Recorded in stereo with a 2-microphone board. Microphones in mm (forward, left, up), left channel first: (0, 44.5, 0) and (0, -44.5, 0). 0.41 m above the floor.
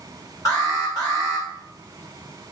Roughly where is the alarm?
Left.